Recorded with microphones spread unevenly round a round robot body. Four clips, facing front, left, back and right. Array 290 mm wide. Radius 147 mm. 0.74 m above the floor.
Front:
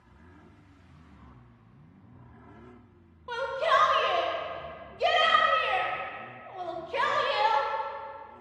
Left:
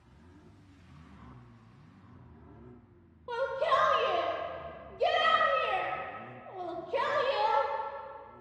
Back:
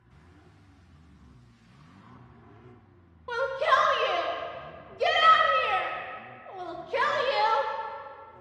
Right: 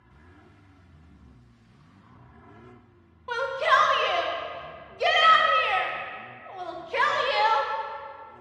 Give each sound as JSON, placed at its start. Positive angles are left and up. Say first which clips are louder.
{"t": 3.3, "sound": "a shout", "louder": "right 5 dB, back 1 dB", "azimuth_deg": 160, "distance_m": 0.9}